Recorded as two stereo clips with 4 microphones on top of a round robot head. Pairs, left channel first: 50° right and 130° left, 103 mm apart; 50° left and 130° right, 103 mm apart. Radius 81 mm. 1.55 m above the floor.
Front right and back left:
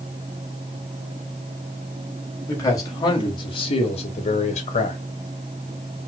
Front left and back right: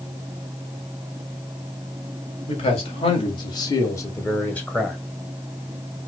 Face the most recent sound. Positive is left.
turn(degrees=-35)